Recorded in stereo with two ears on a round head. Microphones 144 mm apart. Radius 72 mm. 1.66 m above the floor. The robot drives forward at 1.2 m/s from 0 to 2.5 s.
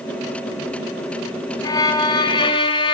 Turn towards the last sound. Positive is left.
turn(degrees=30)  # may be behind; listen again after turning